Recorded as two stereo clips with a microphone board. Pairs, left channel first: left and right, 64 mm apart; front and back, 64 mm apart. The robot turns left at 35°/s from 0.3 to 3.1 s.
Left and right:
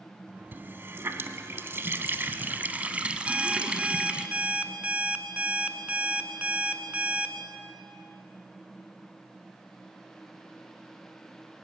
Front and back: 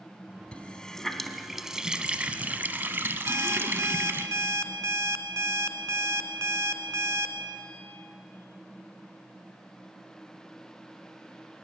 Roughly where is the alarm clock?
Behind right.